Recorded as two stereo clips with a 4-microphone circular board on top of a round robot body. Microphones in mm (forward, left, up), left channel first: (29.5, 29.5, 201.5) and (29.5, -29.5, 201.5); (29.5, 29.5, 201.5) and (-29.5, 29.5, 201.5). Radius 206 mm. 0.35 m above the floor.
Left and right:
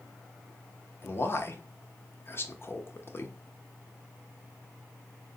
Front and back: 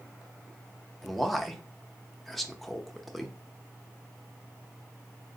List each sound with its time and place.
1.0 s a man speaking: 90° left, 0.9 m